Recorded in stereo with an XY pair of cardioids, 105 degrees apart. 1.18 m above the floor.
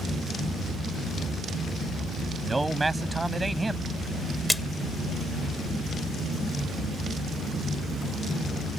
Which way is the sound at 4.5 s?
10° left.